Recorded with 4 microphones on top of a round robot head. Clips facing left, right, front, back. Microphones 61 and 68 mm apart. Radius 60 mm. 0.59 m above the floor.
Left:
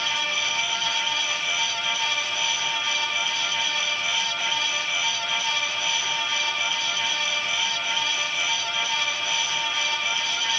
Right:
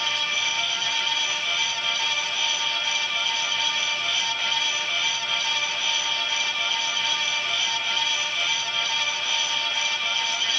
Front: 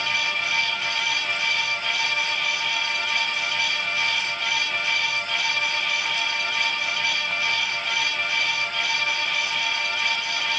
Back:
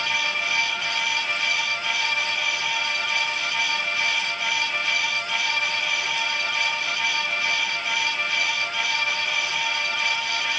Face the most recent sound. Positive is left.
No sound to turn to.